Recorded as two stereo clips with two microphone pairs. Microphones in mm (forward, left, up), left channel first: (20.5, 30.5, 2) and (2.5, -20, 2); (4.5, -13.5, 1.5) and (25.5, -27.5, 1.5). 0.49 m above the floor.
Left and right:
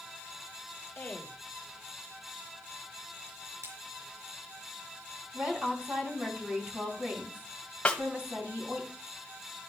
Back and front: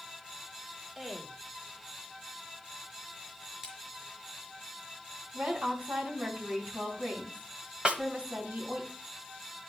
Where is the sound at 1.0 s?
35° left, 1.7 m.